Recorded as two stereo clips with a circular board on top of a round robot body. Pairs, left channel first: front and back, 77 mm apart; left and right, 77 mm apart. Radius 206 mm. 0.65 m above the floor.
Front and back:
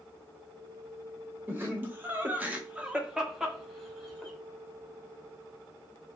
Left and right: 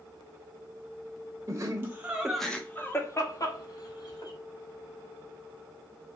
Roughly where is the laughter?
Behind right.